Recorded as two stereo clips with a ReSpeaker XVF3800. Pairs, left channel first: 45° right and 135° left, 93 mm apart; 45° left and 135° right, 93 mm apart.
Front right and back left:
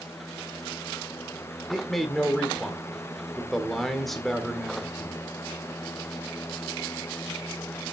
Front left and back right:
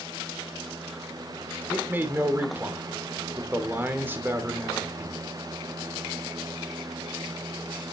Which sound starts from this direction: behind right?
A man speaking, at 1.7 s.